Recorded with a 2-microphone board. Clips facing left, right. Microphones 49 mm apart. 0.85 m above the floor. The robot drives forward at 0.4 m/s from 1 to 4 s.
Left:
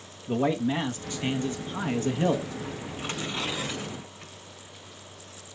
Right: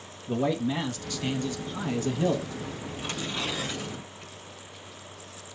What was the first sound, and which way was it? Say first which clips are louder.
A man speaking: left 1 dB; 25° left (ahead or behind).